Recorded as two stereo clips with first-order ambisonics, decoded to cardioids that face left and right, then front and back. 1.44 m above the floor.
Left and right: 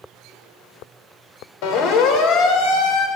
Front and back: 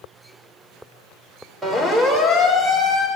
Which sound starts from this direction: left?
A siren, at 1.6 s.